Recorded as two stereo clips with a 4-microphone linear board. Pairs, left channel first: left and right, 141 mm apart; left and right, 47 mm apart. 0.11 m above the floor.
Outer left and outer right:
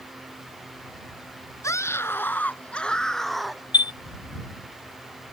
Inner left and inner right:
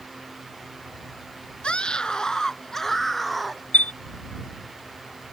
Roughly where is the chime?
Left.